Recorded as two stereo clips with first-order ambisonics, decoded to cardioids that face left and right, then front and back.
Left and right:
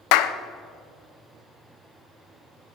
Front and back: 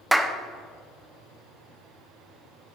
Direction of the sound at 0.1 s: 95° left.